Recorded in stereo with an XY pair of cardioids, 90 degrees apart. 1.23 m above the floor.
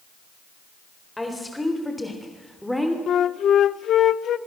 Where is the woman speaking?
15° left, 4 m; by 3.0 s straight ahead, 3 m.